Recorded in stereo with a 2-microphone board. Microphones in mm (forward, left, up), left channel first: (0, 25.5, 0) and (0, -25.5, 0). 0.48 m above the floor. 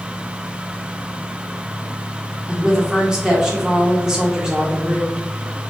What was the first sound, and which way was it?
A woman speaking, 15° right (ahead or behind).